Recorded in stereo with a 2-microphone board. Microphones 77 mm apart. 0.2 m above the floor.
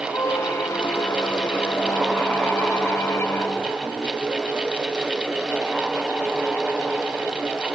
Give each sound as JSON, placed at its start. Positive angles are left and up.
{"t": 0.1, "sound": "a squeak", "side_deg": 40}